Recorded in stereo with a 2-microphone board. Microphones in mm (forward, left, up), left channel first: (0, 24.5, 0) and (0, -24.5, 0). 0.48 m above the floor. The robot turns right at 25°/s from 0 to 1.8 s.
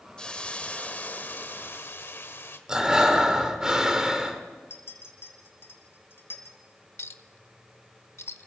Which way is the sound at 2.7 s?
15° right (ahead or behind).